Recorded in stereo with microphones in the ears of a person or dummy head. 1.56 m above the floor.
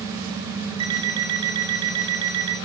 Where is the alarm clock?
25° right (ahead or behind), 1.8 m.